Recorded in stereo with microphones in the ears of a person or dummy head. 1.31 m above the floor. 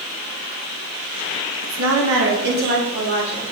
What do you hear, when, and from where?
1.6 s a woman speaking: 85° right, 1.2 m; by 3.4 s 40° right (ahead or behind), 3 m